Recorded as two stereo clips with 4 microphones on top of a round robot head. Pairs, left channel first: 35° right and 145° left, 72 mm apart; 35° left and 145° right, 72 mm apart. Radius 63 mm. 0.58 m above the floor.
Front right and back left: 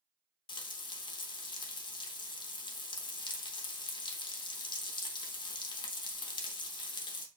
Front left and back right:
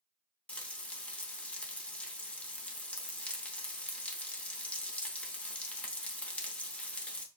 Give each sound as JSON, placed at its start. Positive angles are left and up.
{"t": 0.5, "sound": "frying", "azimuth_deg": -40, "distance_m": 0.8}